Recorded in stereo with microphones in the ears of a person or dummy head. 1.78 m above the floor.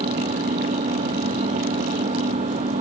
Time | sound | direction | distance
0.0 | an engine running | 35° right (ahead or behind) | ?